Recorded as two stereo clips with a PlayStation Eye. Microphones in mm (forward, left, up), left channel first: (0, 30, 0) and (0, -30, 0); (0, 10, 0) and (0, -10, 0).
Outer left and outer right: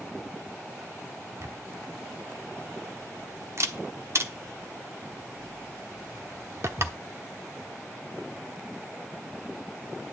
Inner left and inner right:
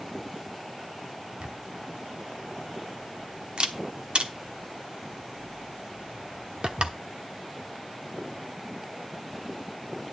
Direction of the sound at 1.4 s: 50° right (ahead or behind).